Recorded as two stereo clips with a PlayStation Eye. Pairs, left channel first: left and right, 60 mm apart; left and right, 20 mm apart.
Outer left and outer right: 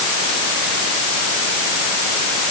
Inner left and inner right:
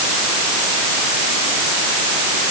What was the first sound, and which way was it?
Only background noise.